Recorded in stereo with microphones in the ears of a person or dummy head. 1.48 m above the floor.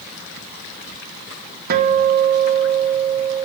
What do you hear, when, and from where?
1.7 s a guitar: 55° right (ahead or behind), 0.8 m